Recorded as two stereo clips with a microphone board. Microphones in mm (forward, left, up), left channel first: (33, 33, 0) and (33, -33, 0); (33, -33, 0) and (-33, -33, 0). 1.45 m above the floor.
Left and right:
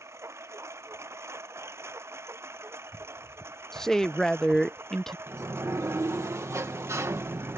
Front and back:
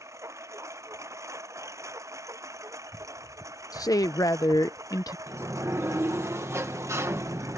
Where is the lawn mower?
140° right; by 7.6 s 145° right.